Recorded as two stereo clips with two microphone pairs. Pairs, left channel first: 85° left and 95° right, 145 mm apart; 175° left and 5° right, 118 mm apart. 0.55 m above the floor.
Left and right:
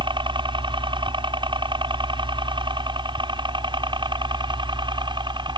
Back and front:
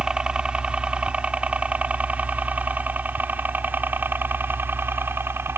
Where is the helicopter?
80° right; by 5.6 s 60° right.